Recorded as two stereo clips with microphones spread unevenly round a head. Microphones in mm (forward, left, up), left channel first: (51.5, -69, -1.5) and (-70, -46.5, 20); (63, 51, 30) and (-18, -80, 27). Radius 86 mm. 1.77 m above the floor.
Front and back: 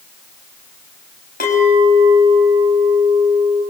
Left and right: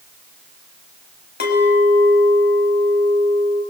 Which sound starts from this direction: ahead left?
A clink, at 1.4 s.